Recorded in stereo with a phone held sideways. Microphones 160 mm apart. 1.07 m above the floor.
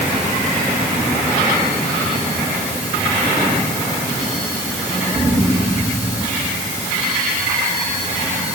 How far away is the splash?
No splash in this recording.